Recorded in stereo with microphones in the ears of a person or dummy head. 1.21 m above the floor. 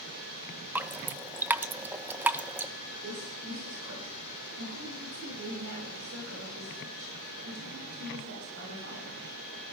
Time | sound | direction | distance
0.8 | dripping | 10° right (ahead or behind) | 0.5 m
3.0 | a woman speaking | 90° right | 7 m